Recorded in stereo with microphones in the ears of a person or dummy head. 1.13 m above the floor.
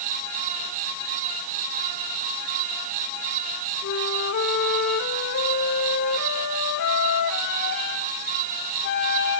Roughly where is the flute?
Left.